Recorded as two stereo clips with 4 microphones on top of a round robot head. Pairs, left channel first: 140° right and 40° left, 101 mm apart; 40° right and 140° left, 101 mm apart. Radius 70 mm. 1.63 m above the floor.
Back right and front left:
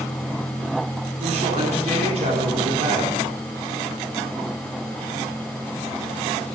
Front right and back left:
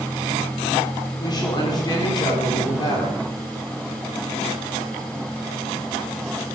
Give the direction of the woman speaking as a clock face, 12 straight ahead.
12 o'clock.